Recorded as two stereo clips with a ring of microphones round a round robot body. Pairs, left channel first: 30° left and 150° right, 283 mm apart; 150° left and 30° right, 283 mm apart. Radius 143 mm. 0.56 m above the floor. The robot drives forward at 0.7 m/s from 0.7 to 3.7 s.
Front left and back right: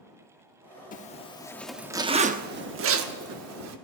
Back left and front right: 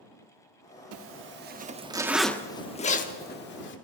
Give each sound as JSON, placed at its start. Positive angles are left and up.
{"t": 0.9, "sound": "a zipper", "azimuth_deg": -25, "distance_m": 1.1}